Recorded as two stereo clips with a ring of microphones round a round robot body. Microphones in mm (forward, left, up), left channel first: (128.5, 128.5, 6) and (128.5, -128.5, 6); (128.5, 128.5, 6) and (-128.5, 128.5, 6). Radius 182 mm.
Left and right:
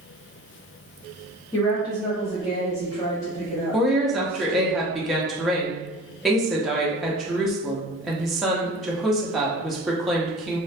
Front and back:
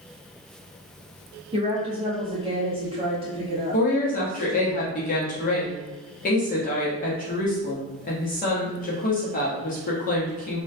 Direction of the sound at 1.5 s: 150° left.